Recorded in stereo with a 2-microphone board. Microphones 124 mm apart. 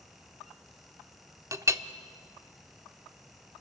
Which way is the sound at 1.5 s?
25° right (ahead or behind).